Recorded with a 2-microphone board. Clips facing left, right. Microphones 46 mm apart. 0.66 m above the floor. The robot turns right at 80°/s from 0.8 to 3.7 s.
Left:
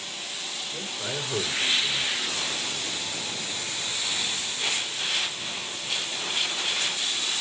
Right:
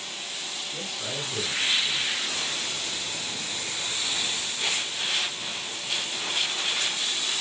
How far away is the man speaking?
About 6 m.